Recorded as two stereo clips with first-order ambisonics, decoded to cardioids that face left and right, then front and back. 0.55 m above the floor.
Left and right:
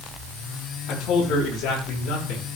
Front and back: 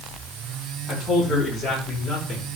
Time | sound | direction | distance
0.9 | a man speaking | 65° left | 5.5 m